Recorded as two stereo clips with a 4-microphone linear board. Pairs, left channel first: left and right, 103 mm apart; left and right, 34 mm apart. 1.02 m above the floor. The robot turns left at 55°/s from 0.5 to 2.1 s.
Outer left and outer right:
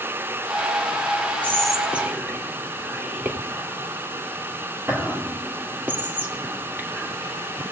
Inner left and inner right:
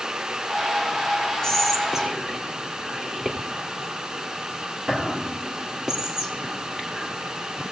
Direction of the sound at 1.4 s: 15° left (ahead or behind).